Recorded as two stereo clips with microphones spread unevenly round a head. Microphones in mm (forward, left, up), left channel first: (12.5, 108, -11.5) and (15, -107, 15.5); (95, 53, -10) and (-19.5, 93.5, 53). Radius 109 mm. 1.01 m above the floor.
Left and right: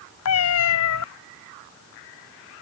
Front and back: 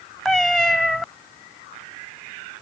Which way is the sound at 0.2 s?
75° left.